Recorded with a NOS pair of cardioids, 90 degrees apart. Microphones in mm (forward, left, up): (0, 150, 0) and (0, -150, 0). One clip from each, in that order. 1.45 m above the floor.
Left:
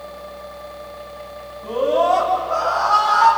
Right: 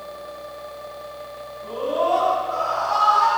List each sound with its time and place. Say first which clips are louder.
0.0 s a fan: left 1 dB; 50° left, 9 m
1.6 s a scream: left 5 dB; 55° left, 9.5 m